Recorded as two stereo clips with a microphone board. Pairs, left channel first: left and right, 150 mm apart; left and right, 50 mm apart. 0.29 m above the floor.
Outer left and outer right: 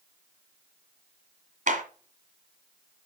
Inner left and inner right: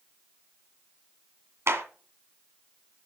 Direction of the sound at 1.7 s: 65° right (ahead or behind).